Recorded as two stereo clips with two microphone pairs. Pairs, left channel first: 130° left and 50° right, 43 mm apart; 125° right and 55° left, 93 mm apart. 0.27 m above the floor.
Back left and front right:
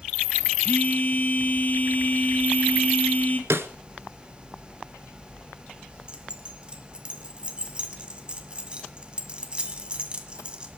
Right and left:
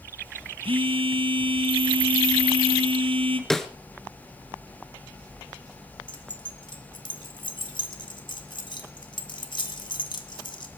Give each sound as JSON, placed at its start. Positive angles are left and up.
{"t": 0.6, "sound": "a phone buzzing", "azimuth_deg": 75, "distance_m": 1.5}
{"t": 3.5, "sound": "a snare drum", "azimuth_deg": -35, "distance_m": 0.9}
{"t": 6.1, "sound": "keys jangling", "azimuth_deg": -115, "distance_m": 1.7}